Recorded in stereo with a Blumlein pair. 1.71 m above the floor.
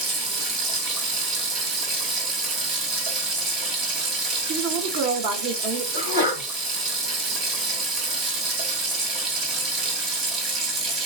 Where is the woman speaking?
45° right, 1.1 m.